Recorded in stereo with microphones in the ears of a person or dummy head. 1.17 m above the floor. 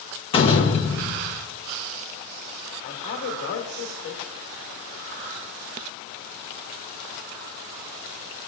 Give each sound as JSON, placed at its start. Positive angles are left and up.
{"t": 0.3, "sound": "a door slam", "side_deg": 25, "distance_m": 1.1}
{"t": 2.8, "sound": "a man speaking", "side_deg": 50, "distance_m": 2.0}